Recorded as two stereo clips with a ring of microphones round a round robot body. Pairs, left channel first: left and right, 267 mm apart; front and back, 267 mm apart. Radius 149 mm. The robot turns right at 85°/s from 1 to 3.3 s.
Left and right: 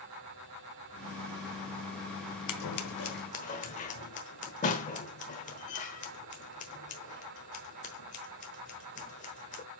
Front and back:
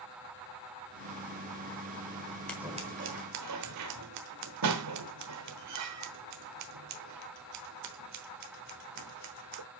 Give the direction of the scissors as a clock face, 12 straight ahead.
9 o'clock.